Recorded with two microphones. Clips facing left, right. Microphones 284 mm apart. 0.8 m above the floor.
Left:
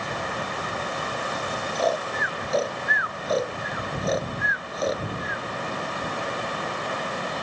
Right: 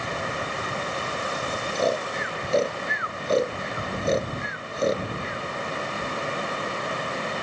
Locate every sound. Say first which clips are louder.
1.8 s snoring: right 1 dB; 30° right (ahead or behind)